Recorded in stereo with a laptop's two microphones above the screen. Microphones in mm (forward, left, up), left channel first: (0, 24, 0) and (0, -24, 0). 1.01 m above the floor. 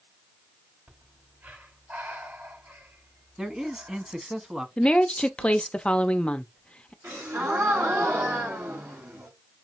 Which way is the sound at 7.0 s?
80° right.